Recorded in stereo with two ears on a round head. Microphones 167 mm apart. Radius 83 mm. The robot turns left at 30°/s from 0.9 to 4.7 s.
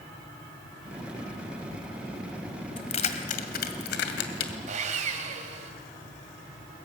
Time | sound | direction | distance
2.8 | keys jangling | 30° left (ahead or behind) | 2.0 m
4.7 | sawing | 40° right (ahead or behind) | 2.5 m